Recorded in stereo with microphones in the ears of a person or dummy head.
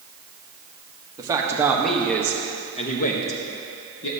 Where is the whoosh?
No whoosh in this recording.